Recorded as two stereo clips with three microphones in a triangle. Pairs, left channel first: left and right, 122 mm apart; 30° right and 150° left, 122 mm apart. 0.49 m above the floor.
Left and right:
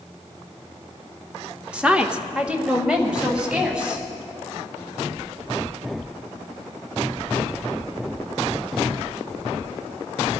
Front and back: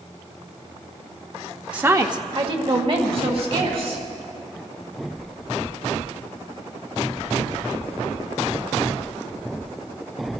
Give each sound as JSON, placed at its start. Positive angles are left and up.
{"t": 1.7, "sound": "a woman speaking", "azimuth_deg": -150, "distance_m": 0.7}